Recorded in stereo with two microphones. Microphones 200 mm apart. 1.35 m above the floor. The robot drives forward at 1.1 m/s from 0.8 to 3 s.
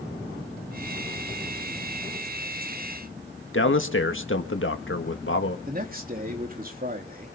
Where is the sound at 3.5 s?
85° left, 1.8 m.